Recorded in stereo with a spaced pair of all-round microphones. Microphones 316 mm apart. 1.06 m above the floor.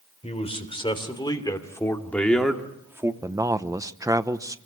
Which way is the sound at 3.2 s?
10° right (ahead or behind).